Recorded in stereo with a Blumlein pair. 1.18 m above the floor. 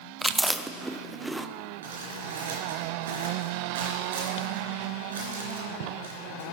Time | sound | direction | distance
0.2 | chewing | straight ahead | 0.5 m
1.8 | crumpling | 65° right | 4 m